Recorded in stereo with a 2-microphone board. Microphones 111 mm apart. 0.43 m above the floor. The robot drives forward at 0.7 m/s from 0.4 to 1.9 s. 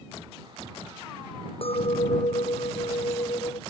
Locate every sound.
1.6 s a clink: 60° left (ahead or behind); by 3.6 s 55° left (ahead or behind)